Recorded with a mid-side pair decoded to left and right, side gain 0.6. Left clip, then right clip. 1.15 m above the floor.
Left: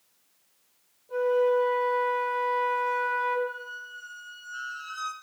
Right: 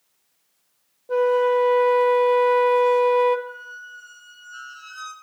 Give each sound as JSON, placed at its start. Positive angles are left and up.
{"t": 1.1, "sound": "a flute", "azimuth_deg": -65, "distance_m": 1.1}
{"t": 3.5, "sound": "a squeak", "azimuth_deg": -5, "distance_m": 1.6}